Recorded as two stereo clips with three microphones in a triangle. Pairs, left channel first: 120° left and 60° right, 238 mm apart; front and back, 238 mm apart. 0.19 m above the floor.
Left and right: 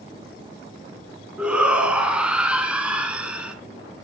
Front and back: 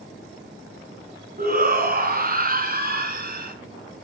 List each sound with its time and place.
1.4 s a shout: 145° right, 1.8 m